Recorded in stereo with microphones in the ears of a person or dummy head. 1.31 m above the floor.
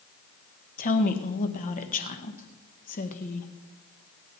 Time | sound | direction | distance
0.8 | a woman speaking | 40° left (ahead or behind) | 1.4 m